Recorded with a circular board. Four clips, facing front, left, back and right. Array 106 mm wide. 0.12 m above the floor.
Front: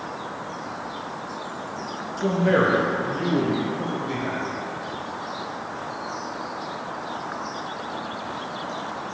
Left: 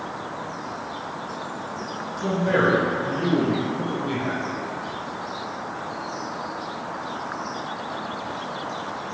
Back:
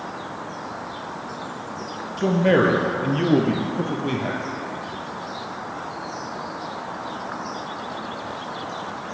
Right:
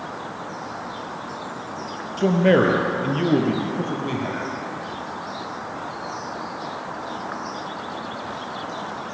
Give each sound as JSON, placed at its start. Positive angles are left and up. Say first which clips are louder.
{"t": 2.2, "sound": "a man speaking", "louder": "right 5 dB, back 2 dB", "azimuth_deg": -115, "distance_m": 3.0}